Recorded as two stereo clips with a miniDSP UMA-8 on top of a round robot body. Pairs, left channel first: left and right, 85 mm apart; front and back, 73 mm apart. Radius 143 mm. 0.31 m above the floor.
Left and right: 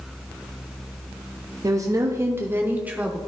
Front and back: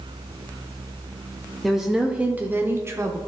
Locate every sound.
1.6 s a woman speaking: 90° right, 1.1 m; by 3.2 s 160° right, 1.1 m